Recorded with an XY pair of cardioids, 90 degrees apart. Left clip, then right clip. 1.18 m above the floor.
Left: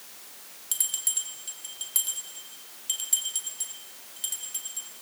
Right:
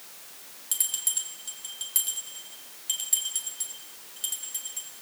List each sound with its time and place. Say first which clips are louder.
0.7 s a bell: even; straight ahead, 4 m